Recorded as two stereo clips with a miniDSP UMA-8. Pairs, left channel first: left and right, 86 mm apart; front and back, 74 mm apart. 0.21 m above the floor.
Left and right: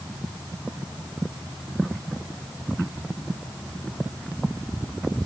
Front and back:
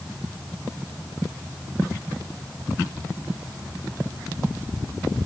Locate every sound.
Only background noise.